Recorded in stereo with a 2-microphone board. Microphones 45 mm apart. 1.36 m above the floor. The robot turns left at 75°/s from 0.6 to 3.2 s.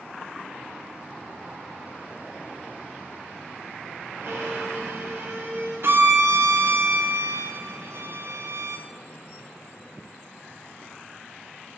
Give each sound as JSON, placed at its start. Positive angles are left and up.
{"t": 4.2, "sound": "a violin", "side_deg": -80, "distance_m": 2.5}
{"t": 5.8, "sound": "a violin", "side_deg": -60, "distance_m": 0.6}